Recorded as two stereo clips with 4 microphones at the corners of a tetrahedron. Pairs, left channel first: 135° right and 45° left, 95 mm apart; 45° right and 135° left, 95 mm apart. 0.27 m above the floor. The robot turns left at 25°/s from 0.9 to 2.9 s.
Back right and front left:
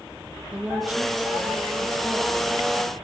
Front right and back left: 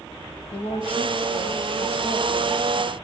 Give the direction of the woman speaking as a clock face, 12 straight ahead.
1 o'clock.